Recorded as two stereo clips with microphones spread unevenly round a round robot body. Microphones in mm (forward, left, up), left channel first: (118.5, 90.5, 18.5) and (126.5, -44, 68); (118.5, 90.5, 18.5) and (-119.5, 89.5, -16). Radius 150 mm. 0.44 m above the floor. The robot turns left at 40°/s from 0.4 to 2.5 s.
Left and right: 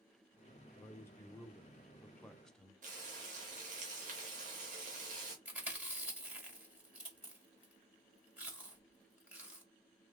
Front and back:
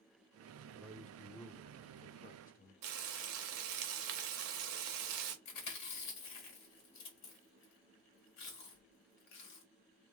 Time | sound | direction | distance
0.7 | a man speaking | 110° left | 0.8 m
2.8 | frying | 145° right | 0.6 m
5.5 | chewing | straight ahead | 2 m